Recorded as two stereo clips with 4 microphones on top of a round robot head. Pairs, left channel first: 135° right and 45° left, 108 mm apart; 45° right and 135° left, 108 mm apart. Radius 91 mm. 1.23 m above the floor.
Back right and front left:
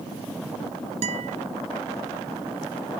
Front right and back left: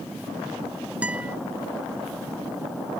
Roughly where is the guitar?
Ahead left.